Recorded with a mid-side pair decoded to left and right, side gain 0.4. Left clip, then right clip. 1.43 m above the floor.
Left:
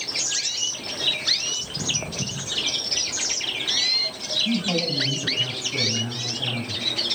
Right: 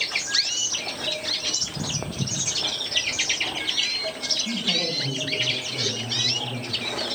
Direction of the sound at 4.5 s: 45° left.